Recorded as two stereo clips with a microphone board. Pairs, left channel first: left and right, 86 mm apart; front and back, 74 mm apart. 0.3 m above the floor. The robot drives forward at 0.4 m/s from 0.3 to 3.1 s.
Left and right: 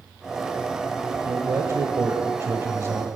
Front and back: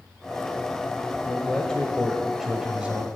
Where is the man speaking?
60° right, 1.1 m; by 3.1 s 120° right, 1.1 m.